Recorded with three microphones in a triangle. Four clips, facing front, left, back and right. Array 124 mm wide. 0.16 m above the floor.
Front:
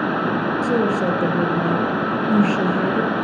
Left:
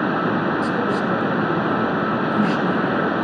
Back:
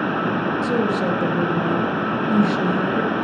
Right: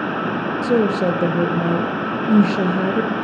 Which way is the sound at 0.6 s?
80° right.